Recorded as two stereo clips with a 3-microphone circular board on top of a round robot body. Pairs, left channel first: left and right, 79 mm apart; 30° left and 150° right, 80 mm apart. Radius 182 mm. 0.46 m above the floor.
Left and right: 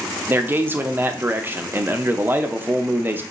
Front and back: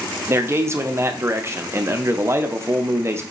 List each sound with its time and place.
0.3 s a man speaking: 130° right, 0.8 m